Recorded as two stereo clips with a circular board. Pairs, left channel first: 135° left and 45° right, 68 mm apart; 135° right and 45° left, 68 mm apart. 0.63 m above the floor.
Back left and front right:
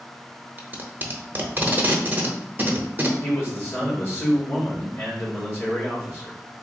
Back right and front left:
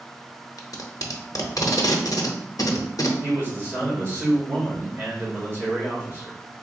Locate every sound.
0.6 s tape being pulled: 105° right, 0.6 m
3.2 s a man speaking: 90° left, 1.9 m